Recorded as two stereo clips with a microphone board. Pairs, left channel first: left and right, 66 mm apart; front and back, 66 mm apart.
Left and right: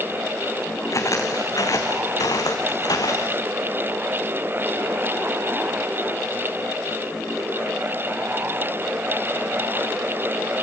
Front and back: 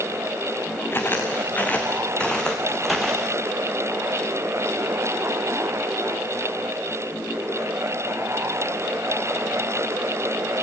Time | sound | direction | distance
0.9 | footsteps | 55° left | 2.5 m